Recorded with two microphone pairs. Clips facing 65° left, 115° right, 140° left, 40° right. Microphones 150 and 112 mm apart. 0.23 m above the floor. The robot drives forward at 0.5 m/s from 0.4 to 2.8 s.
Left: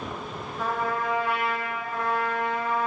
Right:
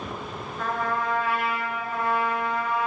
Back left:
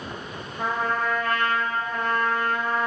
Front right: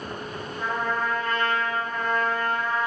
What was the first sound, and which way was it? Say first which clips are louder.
A trumpet: even, back left 2 dB; 140° left.